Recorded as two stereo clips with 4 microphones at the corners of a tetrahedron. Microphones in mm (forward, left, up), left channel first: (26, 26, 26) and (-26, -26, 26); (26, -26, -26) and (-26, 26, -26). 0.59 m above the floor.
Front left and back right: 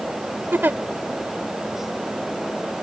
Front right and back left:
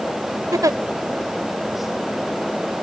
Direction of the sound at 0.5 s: 165° left.